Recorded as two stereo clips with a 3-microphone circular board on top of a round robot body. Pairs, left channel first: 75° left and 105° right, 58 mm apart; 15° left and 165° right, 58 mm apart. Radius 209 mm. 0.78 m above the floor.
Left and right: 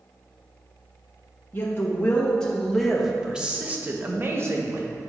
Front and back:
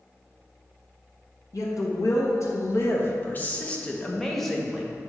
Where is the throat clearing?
No throat clearing in this recording.